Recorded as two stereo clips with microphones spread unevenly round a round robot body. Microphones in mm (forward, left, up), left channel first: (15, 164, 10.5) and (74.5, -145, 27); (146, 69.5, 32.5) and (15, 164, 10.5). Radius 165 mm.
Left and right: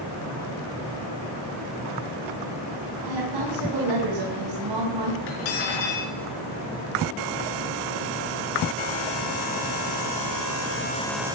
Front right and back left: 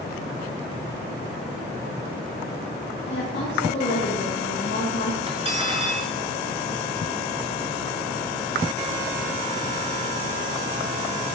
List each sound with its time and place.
3.1 s a woman speaking: 75° right, 4.5 m
5.3 s cutlery clinking: 85° left, 5 m